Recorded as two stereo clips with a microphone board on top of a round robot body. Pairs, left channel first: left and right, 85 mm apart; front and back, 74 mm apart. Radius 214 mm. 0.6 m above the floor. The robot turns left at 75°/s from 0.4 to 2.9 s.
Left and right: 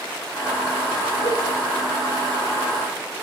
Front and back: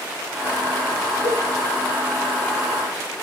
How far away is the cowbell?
About 6.5 m.